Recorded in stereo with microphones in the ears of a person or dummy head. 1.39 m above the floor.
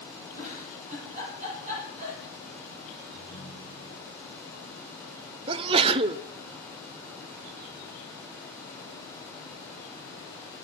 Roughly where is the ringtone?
Centre.